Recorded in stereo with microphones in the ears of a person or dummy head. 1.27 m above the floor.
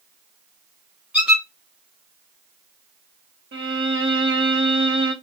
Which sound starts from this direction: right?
A violin, at 3.5 s.